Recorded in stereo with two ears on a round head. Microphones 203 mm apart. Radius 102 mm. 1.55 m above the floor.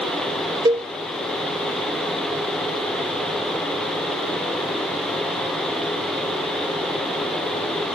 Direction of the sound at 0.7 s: 15° right (ahead or behind).